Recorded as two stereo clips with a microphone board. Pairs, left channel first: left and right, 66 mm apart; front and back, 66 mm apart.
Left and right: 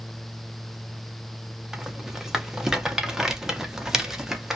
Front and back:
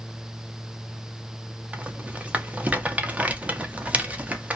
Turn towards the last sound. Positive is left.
turn(degrees=-155)